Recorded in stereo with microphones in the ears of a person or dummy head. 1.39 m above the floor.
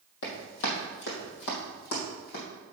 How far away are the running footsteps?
About 3 m.